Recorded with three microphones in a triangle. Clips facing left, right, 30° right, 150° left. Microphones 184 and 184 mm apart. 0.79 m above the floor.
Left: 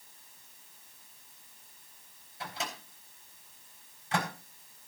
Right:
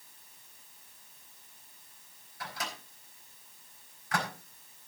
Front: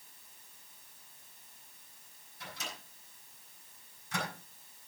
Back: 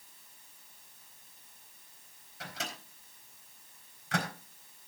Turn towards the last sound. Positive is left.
turn(degrees=160)